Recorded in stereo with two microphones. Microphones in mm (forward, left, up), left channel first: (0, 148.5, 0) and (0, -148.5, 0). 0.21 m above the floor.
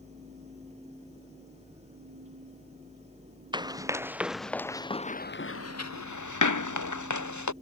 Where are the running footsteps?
15° right (ahead or behind); by 7.5 s 70° left (ahead or behind).